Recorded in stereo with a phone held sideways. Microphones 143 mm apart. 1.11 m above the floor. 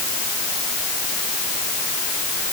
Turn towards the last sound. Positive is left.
No sound to turn to.